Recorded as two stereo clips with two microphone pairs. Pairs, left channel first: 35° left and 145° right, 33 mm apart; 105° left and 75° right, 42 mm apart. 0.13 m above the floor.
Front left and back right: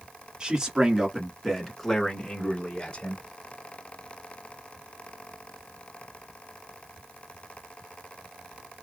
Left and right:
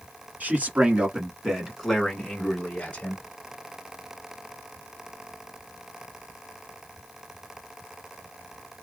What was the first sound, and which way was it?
A man speaking, 90° right.